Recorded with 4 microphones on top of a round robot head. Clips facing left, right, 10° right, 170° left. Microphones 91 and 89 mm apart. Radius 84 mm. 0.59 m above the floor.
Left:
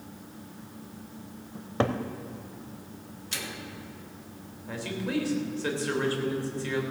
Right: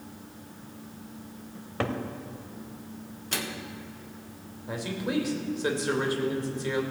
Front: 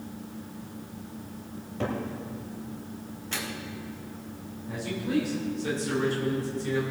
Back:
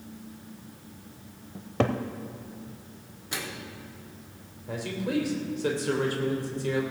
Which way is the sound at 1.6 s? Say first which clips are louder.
Left 3 dB, back 5 dB; 155° left.